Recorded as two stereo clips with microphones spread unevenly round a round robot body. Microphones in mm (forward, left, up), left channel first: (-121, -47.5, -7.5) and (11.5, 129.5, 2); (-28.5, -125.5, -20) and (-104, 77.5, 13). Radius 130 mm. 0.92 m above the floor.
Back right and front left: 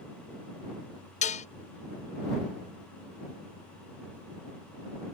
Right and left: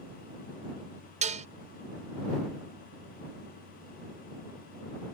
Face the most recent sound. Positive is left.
turn(degrees=175)